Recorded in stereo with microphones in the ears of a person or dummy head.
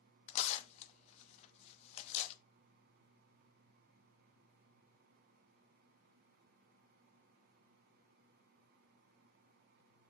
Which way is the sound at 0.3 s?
35° left (ahead or behind).